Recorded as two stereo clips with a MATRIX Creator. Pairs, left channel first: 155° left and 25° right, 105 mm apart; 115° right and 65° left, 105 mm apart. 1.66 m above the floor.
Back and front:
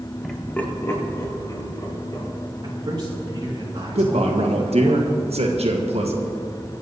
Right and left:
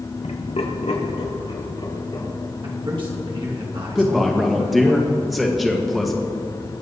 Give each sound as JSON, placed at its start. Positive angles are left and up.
{"t": 0.2, "sound": "laughter", "azimuth_deg": -115, "distance_m": 1.5}
{"t": 2.6, "sound": "a man speaking", "azimuth_deg": 25, "distance_m": 3.0}
{"t": 4.0, "sound": "a man speaking", "azimuth_deg": -25, "distance_m": 1.5}